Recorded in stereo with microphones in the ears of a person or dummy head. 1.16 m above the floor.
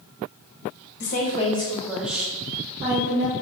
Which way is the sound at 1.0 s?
55° left (ahead or behind).